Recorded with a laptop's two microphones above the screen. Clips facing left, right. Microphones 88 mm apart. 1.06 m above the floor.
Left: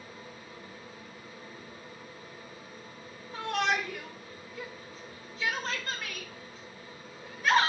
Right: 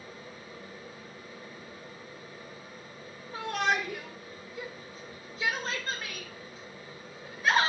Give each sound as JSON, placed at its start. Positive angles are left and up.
{"t": 0.0, "sound": "a fan", "side_deg": -30, "distance_m": 1.3}
{"t": 3.3, "sound": "a shout", "side_deg": -25, "distance_m": 1.5}